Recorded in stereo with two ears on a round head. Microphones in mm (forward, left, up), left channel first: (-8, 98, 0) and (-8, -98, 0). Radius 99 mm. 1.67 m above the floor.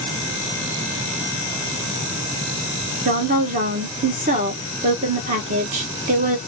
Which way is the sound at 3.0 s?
35° right (ahead or behind).